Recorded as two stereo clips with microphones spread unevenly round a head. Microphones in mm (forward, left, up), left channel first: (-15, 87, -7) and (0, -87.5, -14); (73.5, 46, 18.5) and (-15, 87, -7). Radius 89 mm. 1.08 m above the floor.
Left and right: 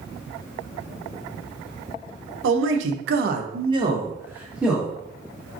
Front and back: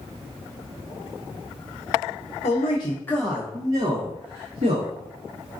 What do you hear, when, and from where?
2.4 s a man speaking: 70° right, 0.6 m; by 5.0 s 175° right, 1.3 m